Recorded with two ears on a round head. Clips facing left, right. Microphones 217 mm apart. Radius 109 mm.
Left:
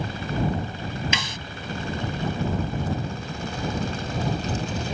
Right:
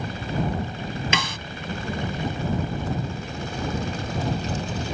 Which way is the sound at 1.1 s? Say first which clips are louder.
Right 4 dB; 50° right (ahead or behind).